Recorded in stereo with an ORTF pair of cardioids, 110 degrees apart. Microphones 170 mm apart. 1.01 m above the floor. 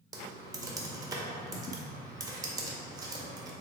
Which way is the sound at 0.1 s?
20° right.